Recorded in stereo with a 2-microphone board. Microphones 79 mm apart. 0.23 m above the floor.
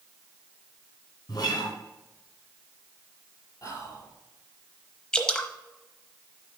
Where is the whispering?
45° left (ahead or behind), 4 m.